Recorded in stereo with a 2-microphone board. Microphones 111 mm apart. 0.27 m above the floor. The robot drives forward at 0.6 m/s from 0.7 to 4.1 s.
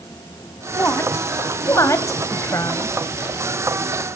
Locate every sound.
0.7 s a woman speaking: 25° left (ahead or behind), 1.7 m; by 3.0 s 30° left (ahead or behind), 1.2 m